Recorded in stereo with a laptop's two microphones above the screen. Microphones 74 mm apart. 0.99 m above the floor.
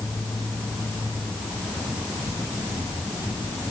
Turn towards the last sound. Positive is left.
No sound to turn to.